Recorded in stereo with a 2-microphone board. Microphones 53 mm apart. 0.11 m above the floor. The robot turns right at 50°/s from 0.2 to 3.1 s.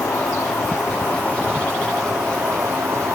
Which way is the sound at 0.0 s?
95° left.